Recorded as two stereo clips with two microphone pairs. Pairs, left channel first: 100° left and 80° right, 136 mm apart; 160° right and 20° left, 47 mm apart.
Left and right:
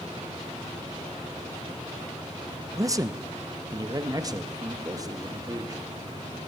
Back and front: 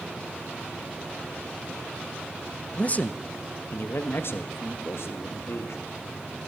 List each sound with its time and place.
2.7 s a man speaking: 125° right, 0.7 m; by 5.8 s 140° right, 2.5 m